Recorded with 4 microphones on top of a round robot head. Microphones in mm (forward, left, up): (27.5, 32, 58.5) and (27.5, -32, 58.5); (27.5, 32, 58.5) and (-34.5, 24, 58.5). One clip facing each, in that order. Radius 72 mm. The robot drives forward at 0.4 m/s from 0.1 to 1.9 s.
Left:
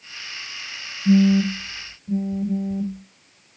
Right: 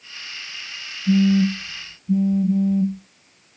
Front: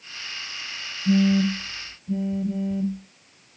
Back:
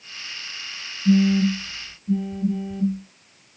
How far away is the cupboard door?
No cupboard door in this recording.